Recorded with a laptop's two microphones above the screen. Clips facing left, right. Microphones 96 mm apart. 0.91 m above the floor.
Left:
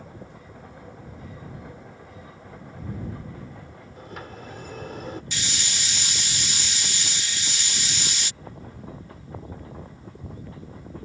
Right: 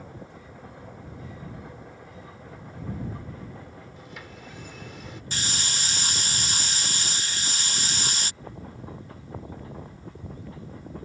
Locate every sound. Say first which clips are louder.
4.0 s a sliding door: left 4 dB; 50° left (ahead or behind)
5.3 s a hiss: right 1 dB; 40° right (ahead or behind)